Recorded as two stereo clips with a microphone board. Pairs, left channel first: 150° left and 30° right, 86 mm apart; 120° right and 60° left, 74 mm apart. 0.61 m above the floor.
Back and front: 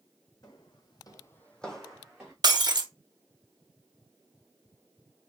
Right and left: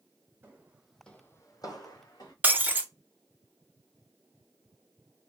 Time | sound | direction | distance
0.4 | footsteps | 120° left | 1.4 m
2.4 | breaking glass | 5° right | 0.6 m